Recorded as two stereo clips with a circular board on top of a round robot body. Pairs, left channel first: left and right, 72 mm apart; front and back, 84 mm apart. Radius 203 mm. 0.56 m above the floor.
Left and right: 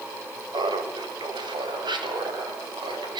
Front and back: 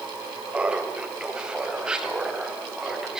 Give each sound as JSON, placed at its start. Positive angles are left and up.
{"t": 0.5, "sound": "laughter", "azimuth_deg": -105, "distance_m": 3.5}